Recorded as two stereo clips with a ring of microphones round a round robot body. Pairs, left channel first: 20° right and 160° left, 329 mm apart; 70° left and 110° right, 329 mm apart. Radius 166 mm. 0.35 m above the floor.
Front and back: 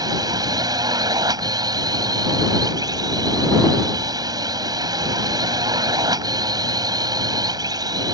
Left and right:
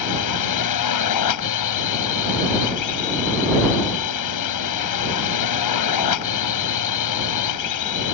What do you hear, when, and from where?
0.0 s a drone: 80° left